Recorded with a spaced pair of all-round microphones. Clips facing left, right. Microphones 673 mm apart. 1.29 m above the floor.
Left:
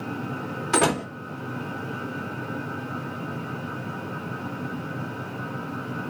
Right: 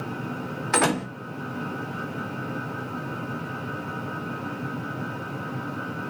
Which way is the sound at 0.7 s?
60° left (ahead or behind).